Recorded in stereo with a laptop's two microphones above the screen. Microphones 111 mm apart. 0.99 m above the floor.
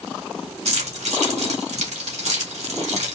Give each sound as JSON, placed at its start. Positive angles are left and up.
{"t": 0.7, "sound": "keys jangling", "side_deg": -80, "distance_m": 1.2}